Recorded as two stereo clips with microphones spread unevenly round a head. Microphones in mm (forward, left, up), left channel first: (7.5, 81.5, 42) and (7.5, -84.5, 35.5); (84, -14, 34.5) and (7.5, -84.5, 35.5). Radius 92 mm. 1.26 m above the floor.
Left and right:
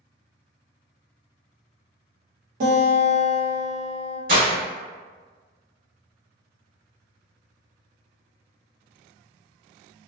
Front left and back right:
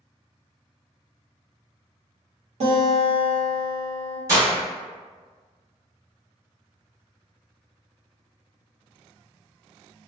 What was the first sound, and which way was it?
A guitar, 130° right.